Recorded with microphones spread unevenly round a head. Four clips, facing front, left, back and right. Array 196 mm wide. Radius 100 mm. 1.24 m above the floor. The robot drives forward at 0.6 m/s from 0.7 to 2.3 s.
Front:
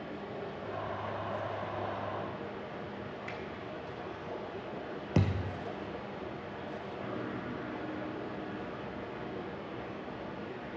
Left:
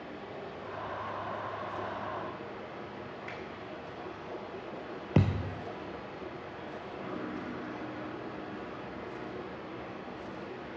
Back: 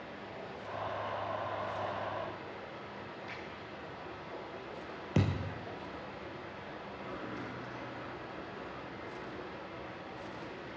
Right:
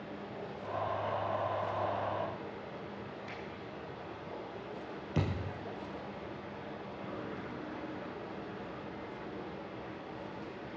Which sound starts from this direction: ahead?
A finger snap, at 3.3 s.